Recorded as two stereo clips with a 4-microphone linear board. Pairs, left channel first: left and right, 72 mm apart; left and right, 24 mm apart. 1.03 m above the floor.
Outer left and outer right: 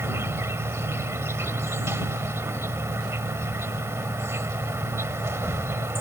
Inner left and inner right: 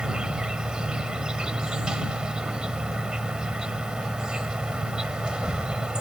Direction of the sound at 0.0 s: 35° right (ahead or behind).